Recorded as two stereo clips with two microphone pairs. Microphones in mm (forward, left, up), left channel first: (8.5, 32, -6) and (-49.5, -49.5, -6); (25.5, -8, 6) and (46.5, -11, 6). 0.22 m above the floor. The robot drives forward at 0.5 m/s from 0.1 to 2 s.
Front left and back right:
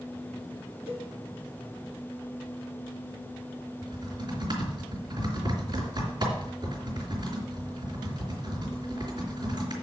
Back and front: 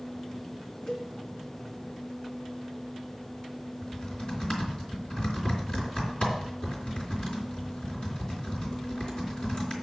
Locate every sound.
0.9 s a cowbell: 125° right, 3 m
3.8 s typing on a keyboard: 155° right, 3 m